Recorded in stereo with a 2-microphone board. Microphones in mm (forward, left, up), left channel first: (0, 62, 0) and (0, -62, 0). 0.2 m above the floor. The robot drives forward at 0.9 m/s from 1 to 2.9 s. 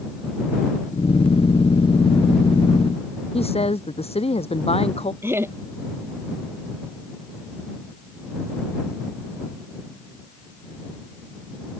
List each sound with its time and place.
3.3 s a woman speaking: 55° left (ahead or behind)
5.2 s laughter: 20° right (ahead or behind)